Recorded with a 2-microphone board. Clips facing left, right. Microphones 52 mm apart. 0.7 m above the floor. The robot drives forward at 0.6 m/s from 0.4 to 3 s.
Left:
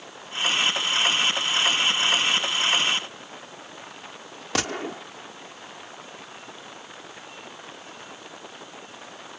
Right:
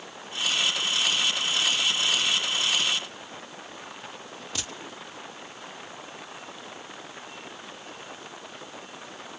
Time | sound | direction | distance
4.5 | a gunshot | 65° left (ahead or behind) | ?